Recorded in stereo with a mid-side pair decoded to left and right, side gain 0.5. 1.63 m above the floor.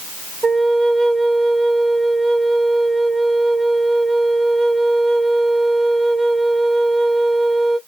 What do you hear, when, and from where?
0.4 s a flute: 25° right, 0.6 m